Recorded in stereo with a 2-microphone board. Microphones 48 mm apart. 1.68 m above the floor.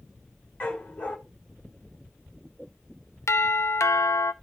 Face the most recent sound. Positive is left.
turn(degrees=75)  # may be behind; listen again after turning